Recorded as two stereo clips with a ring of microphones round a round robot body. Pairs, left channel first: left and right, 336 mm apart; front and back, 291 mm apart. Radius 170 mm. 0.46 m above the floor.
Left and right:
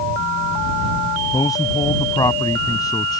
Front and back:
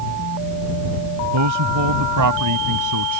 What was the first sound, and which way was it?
A man speaking, 170° left.